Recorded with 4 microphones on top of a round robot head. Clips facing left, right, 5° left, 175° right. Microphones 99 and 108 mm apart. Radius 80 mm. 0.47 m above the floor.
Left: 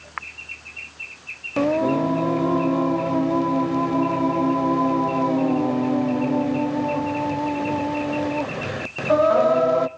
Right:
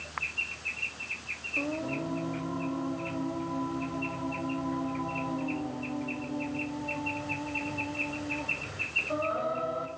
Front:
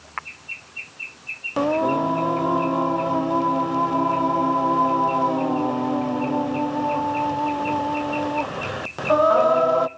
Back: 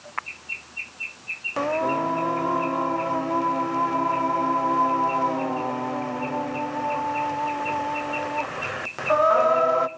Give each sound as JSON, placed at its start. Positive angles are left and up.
{"t": 1.6, "sound": "singing", "azimuth_deg": 80, "distance_m": 0.5}